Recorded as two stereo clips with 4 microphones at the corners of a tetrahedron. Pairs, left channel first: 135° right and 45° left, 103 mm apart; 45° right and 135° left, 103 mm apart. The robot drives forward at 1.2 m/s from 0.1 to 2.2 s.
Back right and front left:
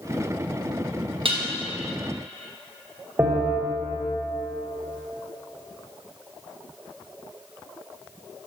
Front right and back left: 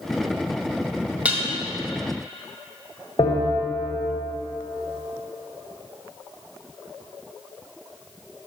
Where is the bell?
15° right, 1.0 m.